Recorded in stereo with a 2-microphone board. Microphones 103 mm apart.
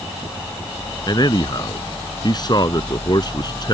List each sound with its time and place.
1.1 s a man speaking: 40° left (ahead or behind)